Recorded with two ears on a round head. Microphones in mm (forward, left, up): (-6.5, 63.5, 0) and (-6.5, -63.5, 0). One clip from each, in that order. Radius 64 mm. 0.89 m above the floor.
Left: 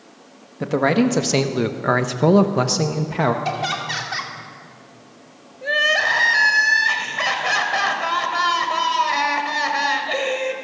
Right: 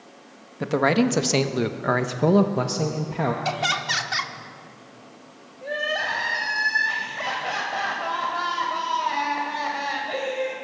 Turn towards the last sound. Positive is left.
turn(degrees=45)  # may be behind; listen again after turning